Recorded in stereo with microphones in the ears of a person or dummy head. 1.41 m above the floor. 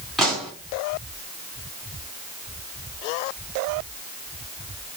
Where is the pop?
Centre (ahead or behind), 2.5 m.